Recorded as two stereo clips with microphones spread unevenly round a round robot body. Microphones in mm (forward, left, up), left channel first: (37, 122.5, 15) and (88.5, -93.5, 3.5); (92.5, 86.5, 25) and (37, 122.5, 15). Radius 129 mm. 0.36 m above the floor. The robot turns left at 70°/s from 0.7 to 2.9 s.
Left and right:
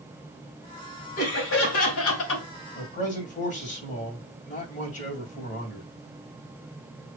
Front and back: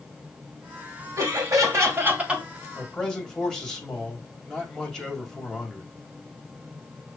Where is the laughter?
160° left, 2 m; by 2.4 s 70° left, 2 m.